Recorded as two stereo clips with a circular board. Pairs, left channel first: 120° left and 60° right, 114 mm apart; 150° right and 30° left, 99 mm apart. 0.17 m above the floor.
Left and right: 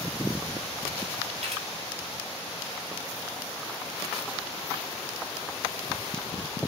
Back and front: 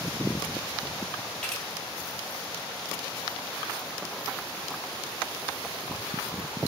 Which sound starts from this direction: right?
A camera shutter, at 1.4 s.